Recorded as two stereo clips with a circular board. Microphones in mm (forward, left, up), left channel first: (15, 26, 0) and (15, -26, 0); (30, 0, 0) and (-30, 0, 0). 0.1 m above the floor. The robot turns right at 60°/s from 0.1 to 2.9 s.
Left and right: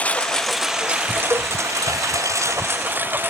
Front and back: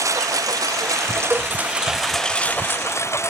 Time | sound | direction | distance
0.0 | a lawn mower | 155° left | ?
1.3 | a cowbell | 115° right | ?